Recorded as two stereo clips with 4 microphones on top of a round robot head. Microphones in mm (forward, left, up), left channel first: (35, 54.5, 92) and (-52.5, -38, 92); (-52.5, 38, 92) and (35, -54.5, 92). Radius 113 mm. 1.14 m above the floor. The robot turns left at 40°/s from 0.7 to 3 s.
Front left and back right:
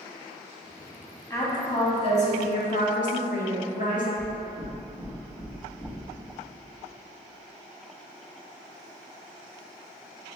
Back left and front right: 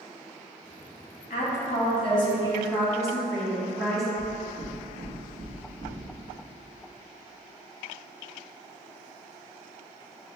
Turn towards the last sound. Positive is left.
turn(degrees=-5)